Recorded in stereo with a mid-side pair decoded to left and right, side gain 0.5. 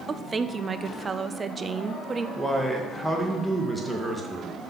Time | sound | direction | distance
0.1 | a woman speaking | 25° right | 0.6 m
2.4 | a man speaking | straight ahead | 1.9 m